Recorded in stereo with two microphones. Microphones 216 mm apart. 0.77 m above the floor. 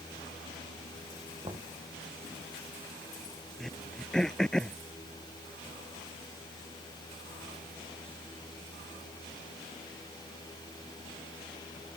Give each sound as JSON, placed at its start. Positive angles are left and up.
{"t": 1.4, "sound": "knocking", "side_deg": -25}
{"t": 3.6, "sound": "throat clearing", "side_deg": 5}